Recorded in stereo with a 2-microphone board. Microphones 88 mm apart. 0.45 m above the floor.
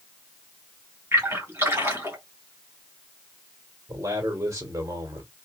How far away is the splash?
About 2.5 m.